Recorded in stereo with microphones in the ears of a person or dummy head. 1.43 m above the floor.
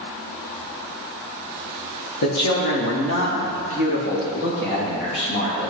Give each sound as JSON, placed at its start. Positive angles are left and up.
{"t": 2.2, "sound": "a man speaking", "side_deg": 75, "distance_m": 1.6}